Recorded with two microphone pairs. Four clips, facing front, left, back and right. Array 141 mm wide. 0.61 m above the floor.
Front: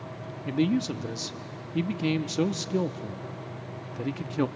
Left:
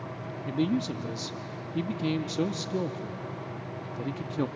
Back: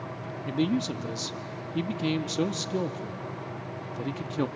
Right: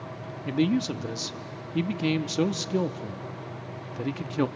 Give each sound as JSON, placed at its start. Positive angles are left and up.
{"t": 0.5, "sound": "a man speaking", "azimuth_deg": -100, "distance_m": 0.7}